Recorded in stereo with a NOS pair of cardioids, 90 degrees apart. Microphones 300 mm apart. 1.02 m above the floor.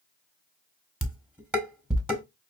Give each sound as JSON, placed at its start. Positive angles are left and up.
{"t": 1.0, "sound": "dishes clattering", "azimuth_deg": -5, "distance_m": 1.3}